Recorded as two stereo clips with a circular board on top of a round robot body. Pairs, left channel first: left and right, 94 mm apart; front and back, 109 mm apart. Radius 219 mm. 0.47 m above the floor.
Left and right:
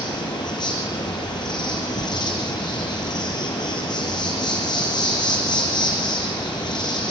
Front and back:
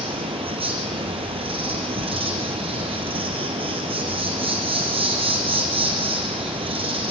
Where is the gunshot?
No gunshot in this recording.